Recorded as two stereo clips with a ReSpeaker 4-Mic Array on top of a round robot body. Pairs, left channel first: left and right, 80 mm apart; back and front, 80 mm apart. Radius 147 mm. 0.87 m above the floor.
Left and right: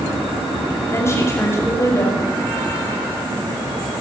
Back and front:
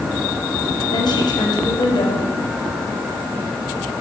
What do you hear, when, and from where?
0.9 s a woman speaking: 150° left, 7 m